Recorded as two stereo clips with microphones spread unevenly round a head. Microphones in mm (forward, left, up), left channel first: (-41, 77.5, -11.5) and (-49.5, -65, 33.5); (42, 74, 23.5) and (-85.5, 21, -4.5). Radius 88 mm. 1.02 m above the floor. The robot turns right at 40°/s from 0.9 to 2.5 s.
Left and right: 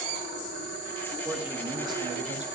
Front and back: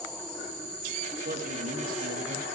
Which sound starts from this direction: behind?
A man speaking, at 1.2 s.